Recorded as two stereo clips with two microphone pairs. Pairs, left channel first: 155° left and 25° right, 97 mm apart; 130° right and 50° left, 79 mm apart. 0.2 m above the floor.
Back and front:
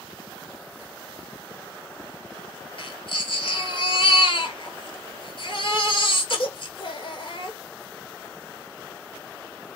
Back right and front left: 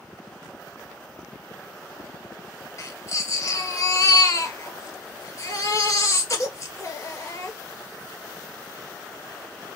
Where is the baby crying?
Straight behind, 1.6 m.